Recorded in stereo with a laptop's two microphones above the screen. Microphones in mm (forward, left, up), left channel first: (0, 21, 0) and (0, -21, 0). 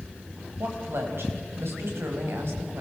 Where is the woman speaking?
70° right (ahead or behind), 5.5 m.